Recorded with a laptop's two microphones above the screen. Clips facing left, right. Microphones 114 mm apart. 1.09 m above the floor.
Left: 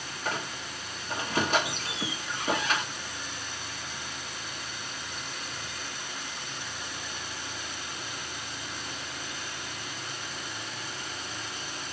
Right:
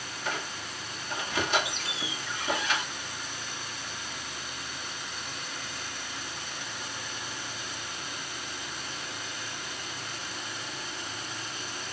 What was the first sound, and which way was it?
A squeak, 40° left (ahead or behind).